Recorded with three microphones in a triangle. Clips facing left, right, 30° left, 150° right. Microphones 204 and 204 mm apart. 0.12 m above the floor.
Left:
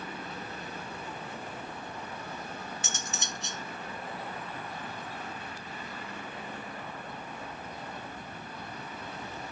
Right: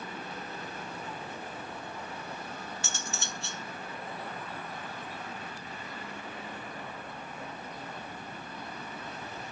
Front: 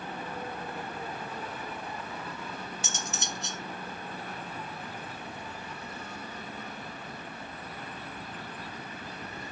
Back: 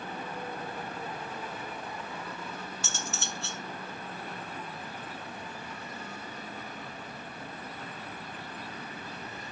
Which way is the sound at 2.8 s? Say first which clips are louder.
Even, front 1 dB; 65° left.